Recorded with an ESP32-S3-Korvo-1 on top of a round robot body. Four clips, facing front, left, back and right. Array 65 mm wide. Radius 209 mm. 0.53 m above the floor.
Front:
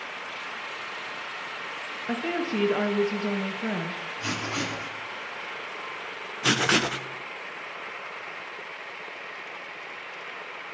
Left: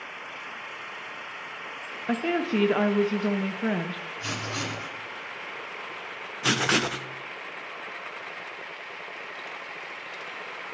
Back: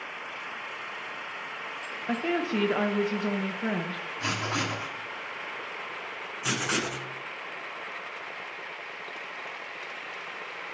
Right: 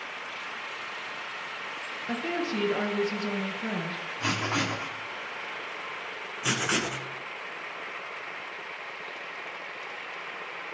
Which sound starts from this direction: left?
A woman speaking, at 2.1 s.